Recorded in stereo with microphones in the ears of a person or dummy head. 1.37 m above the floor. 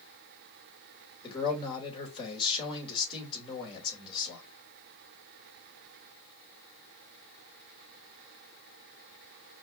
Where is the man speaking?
30° left (ahead or behind), 2.5 m.